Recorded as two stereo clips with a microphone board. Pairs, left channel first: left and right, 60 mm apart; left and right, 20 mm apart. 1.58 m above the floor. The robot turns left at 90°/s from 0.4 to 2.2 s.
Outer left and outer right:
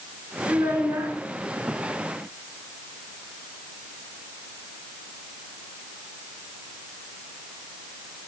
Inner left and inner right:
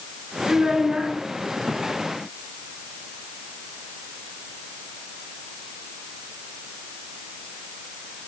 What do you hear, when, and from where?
0.5 s a child speaking: 80° right, 1.7 m; by 1.1 s 140° right, 1.7 m